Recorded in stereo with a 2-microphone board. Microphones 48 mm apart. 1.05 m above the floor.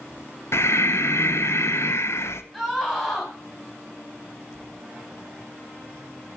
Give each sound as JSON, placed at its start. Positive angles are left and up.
{"t": 0.5, "sound": "breathing", "side_deg": 65, "distance_m": 0.7}
{"t": 2.5, "sound": "a scream", "side_deg": 10, "distance_m": 5.0}